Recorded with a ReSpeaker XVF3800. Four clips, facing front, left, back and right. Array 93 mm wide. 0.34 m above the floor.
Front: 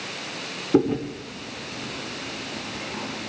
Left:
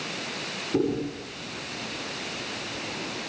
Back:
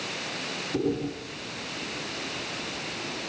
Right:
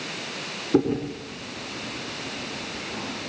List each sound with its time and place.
0.7 s chewing: 30° right, 3.5 m